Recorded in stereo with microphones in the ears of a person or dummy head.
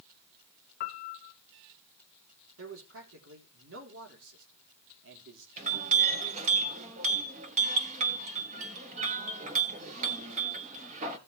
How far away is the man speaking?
About 3.5 m.